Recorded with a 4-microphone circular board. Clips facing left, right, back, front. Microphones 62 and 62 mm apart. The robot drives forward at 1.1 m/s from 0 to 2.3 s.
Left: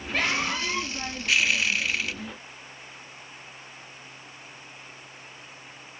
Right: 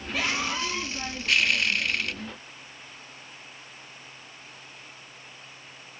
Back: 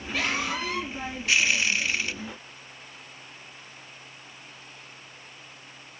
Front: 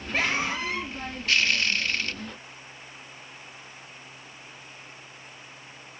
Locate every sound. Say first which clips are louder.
0.1 s a scream: left 2 dB, front 2 dB; 50° left, 5 m; by 0.9 s 60° left, 4.5 m